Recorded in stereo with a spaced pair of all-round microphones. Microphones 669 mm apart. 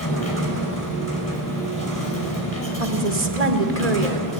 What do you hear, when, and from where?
0.0 s a machine running: 25° left (ahead or behind), 6 m
2.8 s a woman speaking: 65° right (ahead or behind), 2.0 m